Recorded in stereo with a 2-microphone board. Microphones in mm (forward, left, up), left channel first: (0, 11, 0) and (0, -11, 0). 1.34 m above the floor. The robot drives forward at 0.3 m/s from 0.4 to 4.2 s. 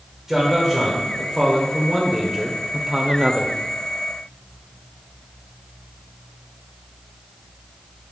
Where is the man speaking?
10° right (ahead or behind), 1.3 m; by 3.5 s 35° right (ahead or behind), 0.5 m.